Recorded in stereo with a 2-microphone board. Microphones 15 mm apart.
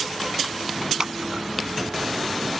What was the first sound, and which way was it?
Scissors, 40° right (ahead or behind).